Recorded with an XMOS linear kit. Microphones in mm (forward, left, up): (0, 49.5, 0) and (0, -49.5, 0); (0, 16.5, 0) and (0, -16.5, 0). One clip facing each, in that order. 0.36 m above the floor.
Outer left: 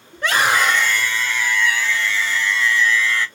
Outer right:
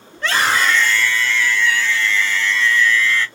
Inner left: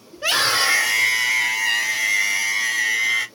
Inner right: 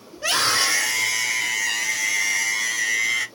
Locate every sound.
0.1 s a scream: 15° left (ahead or behind), 1.2 m; by 3.3 s 10° left (ahead or behind), 1.9 m